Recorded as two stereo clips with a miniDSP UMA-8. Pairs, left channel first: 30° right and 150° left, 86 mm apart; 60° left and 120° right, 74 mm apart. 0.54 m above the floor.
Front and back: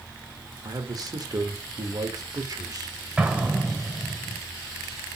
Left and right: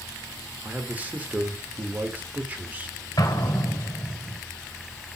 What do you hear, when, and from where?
0.6 s a man speaking: 175° left, 1.3 m
3.2 s an explosion: 75° left, 1.3 m